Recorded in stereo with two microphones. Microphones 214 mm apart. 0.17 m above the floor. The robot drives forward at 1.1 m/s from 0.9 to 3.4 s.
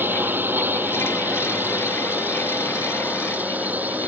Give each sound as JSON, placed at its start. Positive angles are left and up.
{"t": 0.0, "sound": "a drone", "side_deg": -10}